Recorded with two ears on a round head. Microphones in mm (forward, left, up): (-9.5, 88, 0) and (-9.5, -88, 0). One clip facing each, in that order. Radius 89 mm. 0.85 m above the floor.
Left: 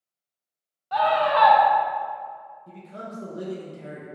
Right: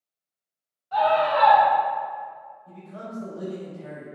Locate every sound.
0.9 s a scream: 65° left (ahead or behind), 1.0 m
2.7 s a man speaking: 30° left (ahead or behind), 0.5 m